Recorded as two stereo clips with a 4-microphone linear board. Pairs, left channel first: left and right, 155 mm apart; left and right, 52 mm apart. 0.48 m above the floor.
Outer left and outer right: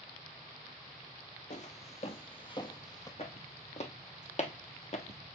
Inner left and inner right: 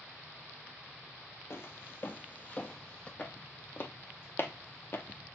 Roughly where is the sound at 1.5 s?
Left.